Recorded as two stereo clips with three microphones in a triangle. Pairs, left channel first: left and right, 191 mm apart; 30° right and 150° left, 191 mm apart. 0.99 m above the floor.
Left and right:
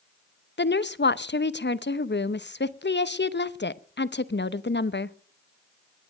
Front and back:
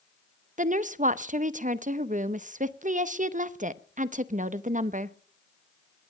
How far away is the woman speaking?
About 0.7 m.